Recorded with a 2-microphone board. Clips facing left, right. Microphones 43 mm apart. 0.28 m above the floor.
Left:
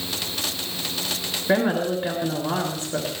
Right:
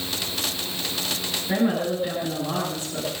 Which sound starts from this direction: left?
A woman speaking, at 1.5 s.